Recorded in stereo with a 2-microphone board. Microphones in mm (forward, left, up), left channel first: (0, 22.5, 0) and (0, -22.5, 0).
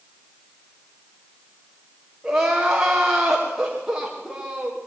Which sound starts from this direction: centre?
Crying, at 2.2 s.